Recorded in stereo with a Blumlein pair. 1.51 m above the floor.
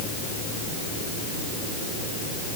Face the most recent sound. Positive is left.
No sound to turn to.